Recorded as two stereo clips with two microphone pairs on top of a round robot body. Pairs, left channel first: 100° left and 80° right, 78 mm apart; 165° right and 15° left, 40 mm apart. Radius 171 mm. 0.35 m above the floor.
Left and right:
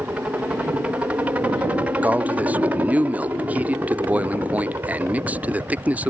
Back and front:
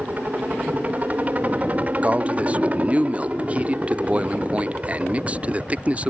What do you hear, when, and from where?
0.0 s a helicopter: 30° right; by 6.1 s 40° right
2.0 s a man speaking: 40° right